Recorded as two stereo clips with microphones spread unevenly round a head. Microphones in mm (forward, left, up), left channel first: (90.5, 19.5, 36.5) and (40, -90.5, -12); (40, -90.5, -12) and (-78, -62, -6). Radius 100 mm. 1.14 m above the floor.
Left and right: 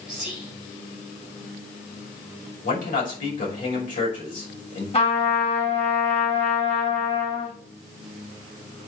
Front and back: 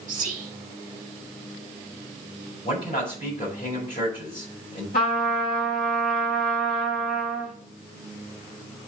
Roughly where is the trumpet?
Ahead left.